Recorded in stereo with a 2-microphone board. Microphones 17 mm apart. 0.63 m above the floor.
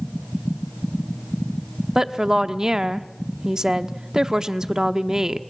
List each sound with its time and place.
1.9 s a woman speaking: 40° right (ahead or behind), 0.9 m